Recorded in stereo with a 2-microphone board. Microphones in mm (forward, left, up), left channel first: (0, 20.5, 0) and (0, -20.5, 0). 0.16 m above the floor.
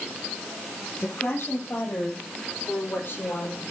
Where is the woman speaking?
55° left (ahead or behind), 6 m; by 3.6 s 45° left (ahead or behind), 5 m.